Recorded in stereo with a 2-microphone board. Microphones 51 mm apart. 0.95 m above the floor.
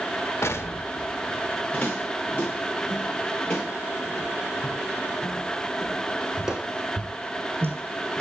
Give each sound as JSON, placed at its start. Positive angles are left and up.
{"t": 0.4, "sound": "an explosion", "side_deg": 65, "distance_m": 1.3}
{"t": 1.7, "sound": "footsteps", "side_deg": 30, "distance_m": 8.0}